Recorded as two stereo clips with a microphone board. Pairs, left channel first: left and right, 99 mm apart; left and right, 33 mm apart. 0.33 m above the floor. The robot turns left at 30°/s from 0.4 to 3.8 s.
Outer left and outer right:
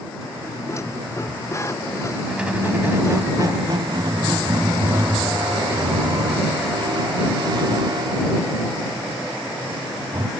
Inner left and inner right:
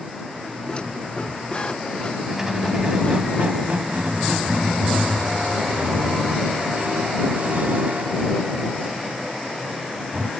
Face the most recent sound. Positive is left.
turn(degrees=-55)